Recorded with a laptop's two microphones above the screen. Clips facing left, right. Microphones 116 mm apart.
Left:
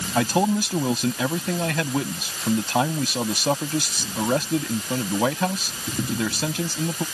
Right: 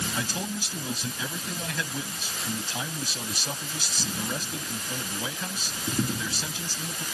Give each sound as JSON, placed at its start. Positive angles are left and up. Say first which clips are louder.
{"t": 0.1, "sound": "a man speaking", "louder": "left 12 dB", "side_deg": 65}